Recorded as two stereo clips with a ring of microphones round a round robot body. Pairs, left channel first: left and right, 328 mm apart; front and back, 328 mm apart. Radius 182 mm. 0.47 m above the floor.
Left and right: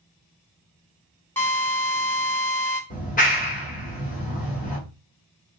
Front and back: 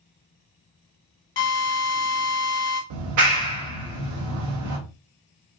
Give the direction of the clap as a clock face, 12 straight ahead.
7 o'clock.